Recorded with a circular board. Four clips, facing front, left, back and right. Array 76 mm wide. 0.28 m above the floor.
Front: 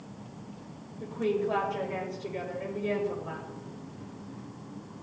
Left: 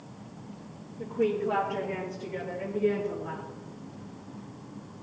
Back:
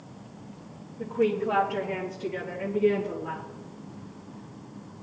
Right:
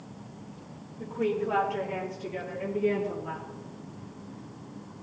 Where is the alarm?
No alarm in this recording.